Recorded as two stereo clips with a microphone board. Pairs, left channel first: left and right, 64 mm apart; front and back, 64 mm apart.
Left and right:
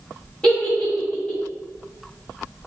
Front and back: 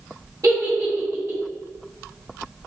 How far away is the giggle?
About 1.4 m.